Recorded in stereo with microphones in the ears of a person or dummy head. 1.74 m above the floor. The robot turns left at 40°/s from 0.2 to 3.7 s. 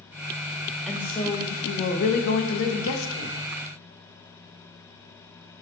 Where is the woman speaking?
175° left, 0.6 m; by 3.4 s 75° left, 0.6 m.